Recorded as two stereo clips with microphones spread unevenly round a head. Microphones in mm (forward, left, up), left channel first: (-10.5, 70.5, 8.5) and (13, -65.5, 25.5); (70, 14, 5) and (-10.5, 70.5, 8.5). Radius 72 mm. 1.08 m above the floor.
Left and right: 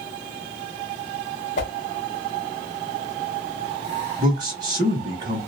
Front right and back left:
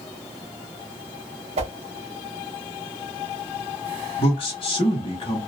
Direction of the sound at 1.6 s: 140° left.